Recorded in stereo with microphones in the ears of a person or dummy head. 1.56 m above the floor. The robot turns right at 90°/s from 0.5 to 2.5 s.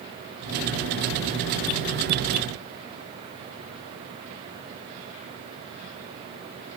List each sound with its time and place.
Only background noise.